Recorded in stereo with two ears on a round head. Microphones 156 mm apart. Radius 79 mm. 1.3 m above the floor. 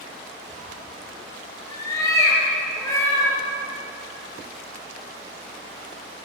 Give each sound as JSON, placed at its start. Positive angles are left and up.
{"t": 0.5, "sound": "a cat meowing", "side_deg": 25, "distance_m": 6.0}